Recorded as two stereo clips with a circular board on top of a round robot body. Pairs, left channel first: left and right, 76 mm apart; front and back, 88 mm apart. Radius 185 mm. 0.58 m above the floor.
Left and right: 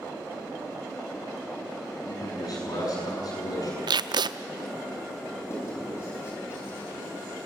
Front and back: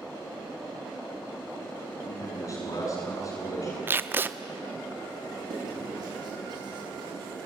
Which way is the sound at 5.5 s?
145° left.